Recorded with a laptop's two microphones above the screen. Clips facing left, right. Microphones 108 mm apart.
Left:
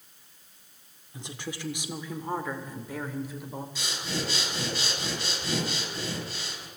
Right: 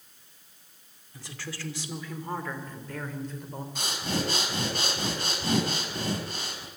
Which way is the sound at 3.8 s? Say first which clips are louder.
Right 5 dB; 50° right (ahead or behind).